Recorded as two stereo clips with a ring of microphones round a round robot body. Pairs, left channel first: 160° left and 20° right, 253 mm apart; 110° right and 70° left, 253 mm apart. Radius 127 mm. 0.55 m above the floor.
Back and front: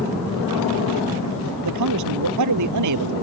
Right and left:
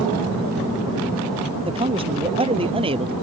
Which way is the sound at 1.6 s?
Straight ahead.